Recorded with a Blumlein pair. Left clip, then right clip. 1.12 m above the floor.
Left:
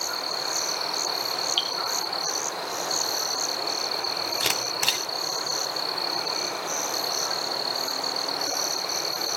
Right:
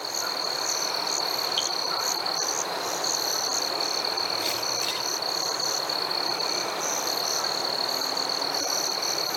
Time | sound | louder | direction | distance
1.6 | dripping | left 3 dB | 20° left | 1.1 m
4.4 | a camera shutter | left 2 dB | 65° left | 3 m